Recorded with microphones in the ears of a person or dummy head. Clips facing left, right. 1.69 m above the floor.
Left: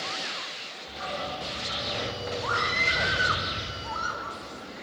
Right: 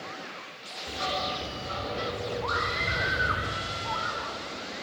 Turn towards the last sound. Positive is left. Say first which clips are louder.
# even
turn(degrees=50)  # may be behind; listen again after turning